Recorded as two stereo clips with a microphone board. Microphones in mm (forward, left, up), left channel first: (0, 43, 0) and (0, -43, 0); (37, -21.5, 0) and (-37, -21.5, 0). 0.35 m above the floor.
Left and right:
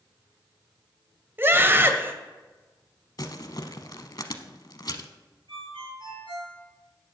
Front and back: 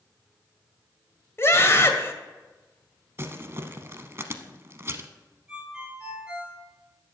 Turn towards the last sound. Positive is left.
turn(degrees=-105)